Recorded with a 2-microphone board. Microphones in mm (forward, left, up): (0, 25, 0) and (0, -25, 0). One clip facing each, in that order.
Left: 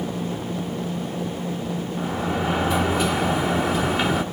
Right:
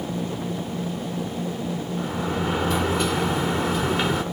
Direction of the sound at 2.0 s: 5° left (ahead or behind).